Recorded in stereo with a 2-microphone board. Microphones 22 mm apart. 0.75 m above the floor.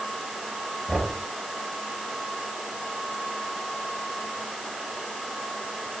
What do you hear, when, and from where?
0.9 s knocking: 20° right (ahead or behind), 9.5 m